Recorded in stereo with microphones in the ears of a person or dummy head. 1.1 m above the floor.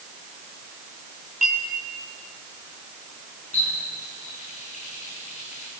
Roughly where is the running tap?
Left.